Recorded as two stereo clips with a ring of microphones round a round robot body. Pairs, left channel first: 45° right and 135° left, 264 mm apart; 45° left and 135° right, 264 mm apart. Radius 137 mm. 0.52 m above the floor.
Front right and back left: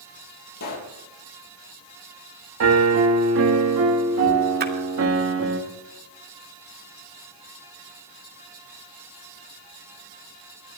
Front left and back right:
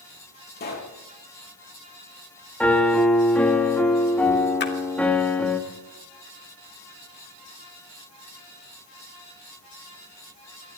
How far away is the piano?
About 1.9 m.